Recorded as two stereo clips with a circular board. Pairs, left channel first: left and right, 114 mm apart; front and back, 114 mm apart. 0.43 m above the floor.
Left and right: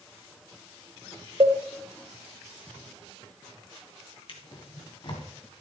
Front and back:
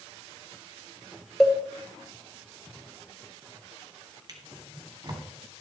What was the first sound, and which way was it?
A cowbell, 85° right.